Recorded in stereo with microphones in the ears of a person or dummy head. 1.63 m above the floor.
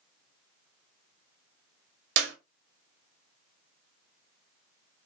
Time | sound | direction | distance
2.2 | a clap | 75° right (ahead or behind) | 0.7 m